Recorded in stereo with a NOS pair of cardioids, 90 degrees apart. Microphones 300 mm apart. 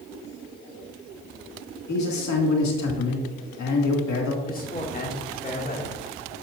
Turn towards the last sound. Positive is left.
turn(degrees=30)